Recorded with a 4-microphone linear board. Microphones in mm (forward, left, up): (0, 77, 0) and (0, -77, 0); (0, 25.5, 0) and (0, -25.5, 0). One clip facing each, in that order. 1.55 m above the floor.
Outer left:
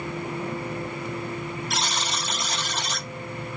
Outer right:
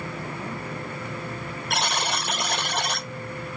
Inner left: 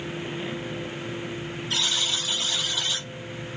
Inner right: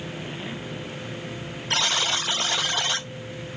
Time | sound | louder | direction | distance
1.7 | a buzzer | outer right 7 dB, inner right 4 dB | 60° right (ahead or behind) | 0.6 m